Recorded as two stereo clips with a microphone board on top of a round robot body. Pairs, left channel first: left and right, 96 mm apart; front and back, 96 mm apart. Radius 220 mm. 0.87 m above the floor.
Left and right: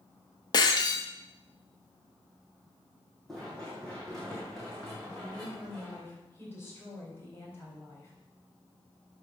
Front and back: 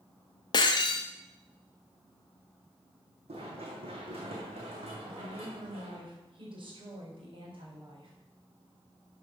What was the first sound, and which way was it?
Breaking glass, 45° left.